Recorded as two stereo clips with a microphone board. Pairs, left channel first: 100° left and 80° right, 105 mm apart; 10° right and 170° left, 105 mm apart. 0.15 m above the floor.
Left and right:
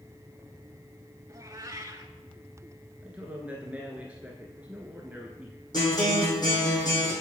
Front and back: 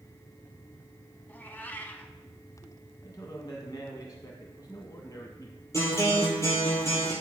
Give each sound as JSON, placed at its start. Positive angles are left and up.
{"t": 1.3, "sound": "a cat meowing", "azimuth_deg": -70, "distance_m": 0.8}
{"t": 3.0, "sound": "a man speaking", "azimuth_deg": -15, "distance_m": 1.3}
{"t": 5.7, "sound": "a guitar", "azimuth_deg": 50, "distance_m": 4.0}